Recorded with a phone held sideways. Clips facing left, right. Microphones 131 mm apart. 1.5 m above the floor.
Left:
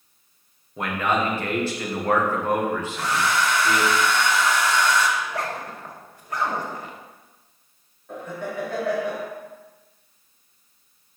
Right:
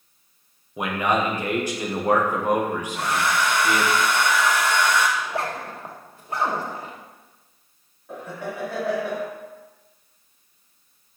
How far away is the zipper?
About 1.1 m.